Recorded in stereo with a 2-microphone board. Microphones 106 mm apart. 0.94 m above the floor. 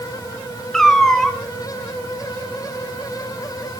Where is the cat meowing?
5° left (ahead or behind), 2 m.